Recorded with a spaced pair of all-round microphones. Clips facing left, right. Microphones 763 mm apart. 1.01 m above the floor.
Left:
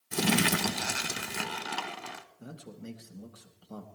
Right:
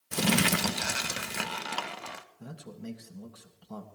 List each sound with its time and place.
0.1 s crumpling: 10° right (ahead or behind), 0.6 m
2.4 s a man speaking: 30° right (ahead or behind), 1.7 m